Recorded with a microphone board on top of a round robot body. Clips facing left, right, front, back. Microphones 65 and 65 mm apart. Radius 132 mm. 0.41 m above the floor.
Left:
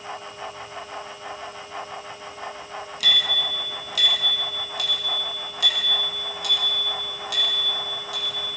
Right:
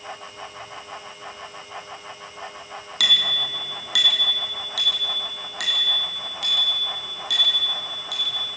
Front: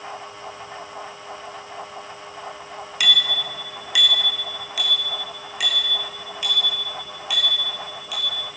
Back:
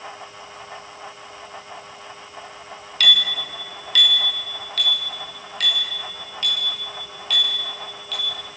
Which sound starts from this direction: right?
A bicycle bell, at 3.0 s.